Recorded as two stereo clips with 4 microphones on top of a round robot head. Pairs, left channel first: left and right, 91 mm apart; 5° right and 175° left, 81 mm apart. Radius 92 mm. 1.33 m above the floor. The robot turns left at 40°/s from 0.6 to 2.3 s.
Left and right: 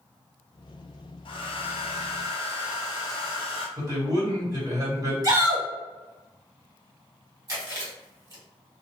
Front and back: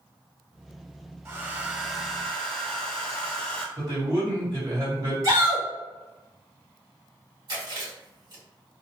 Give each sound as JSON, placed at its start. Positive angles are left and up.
{"t": 1.2, "sound": "a hair dryer", "azimuth_deg": 115, "distance_m": 0.8}
{"t": 3.8, "sound": "a man speaking", "azimuth_deg": -140, "distance_m": 1.7}
{"t": 5.2, "sound": "a shout", "azimuth_deg": -135, "distance_m": 1.8}
{"t": 7.5, "sound": "chewing", "azimuth_deg": -145, "distance_m": 1.7}